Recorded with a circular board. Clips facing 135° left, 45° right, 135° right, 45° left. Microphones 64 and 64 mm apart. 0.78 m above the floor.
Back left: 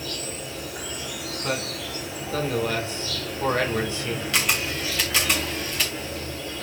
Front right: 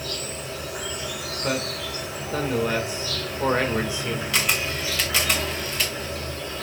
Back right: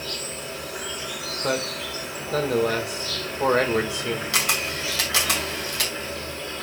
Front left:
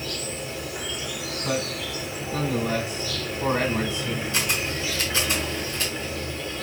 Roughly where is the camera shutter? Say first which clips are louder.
Even, back right 1 dB; behind right.